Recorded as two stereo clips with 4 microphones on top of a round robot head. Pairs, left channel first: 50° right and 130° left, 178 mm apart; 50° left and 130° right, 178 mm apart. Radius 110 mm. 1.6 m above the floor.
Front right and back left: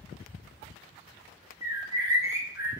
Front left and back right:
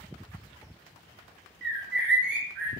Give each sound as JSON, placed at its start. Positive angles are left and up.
{"t": 1.6, "sound": "a bird", "azimuth_deg": -155, "distance_m": 0.7}